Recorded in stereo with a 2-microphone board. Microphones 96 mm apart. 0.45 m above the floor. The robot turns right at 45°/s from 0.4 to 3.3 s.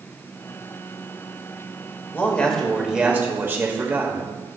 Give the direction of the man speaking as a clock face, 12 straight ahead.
7 o'clock.